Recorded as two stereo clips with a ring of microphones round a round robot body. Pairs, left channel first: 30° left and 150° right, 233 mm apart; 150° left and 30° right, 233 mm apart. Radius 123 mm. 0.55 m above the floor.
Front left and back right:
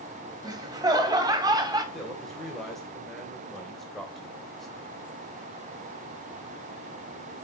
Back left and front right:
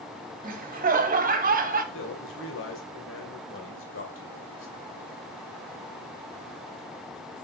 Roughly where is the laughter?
Right.